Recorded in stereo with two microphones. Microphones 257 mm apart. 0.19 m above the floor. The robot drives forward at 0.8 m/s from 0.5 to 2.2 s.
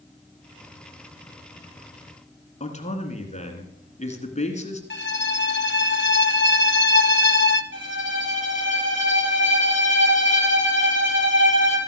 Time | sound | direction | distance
2.6 | a man speaking | 25° left (ahead or behind) | 1.7 m
4.9 | a violin | 45° left (ahead or behind) | 0.7 m
7.7 | a violin | 50° right (ahead or behind) | 4.5 m